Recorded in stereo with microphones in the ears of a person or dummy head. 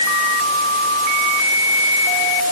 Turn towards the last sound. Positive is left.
No sound to turn to.